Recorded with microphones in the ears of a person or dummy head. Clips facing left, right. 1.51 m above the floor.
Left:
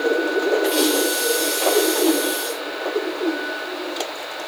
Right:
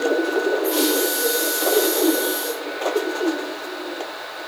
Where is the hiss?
5° right (ahead or behind), 7 m.